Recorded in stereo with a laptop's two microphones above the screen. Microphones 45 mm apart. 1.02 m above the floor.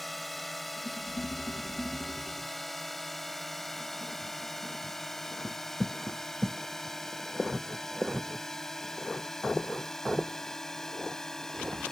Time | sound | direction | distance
0.0 | a drone | 5° left (ahead or behind) | ?